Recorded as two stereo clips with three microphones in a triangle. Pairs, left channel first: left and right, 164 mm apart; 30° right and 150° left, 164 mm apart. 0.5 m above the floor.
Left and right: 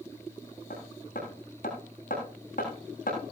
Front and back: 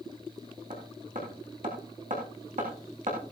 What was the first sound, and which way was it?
Hammering, 120° left.